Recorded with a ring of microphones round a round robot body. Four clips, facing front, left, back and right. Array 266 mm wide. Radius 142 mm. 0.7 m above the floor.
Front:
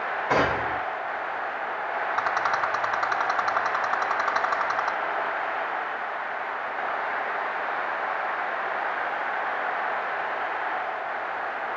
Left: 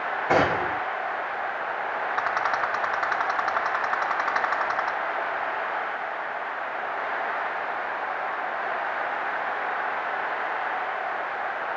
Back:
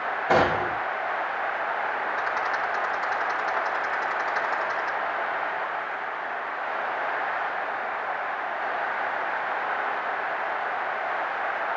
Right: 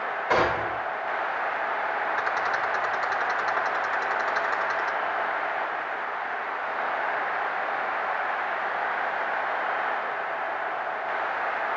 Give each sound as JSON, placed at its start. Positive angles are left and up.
{"t": 0.3, "sound": "a gunshot", "azimuth_deg": 135, "distance_m": 4.0}
{"t": 2.2, "sound": "a rattle", "azimuth_deg": 50, "distance_m": 3.0}